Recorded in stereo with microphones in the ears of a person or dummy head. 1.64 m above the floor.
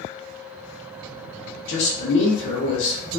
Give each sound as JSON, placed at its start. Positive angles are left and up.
{"t": 1.7, "sound": "a man speaking", "side_deg": 70, "distance_m": 1.0}